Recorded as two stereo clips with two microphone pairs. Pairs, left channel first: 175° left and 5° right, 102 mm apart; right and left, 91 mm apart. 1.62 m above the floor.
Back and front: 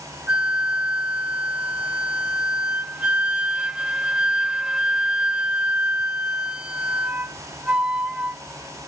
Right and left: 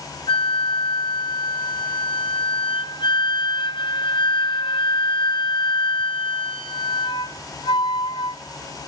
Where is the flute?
90° right, 0.9 m.